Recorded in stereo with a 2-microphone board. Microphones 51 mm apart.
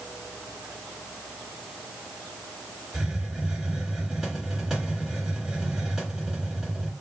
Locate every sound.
2.9 s a hiss: 10° right (ahead or behind), 2 m